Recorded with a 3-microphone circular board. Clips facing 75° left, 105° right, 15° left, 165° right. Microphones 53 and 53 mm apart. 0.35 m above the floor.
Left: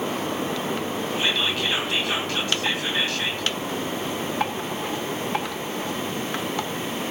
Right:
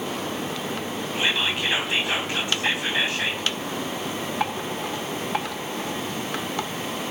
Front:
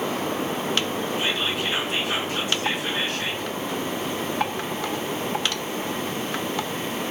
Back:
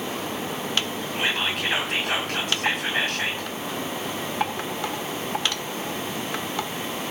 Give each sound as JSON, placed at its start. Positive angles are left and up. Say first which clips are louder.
{"t": 1.1, "sound": "whispering", "louder": "right 1 dB, back 3 dB", "azimuth_deg": -170, "distance_m": 2.5}